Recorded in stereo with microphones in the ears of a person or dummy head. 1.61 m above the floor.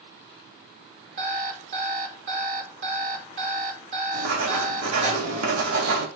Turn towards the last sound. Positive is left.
turn(degrees=-85)